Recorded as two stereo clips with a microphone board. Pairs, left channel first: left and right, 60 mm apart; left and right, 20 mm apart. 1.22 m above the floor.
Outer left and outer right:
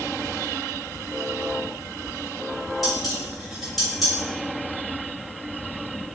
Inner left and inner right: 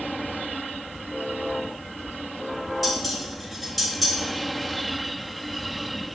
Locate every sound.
2.8 s dishes clattering: centre (ahead or behind), 3 m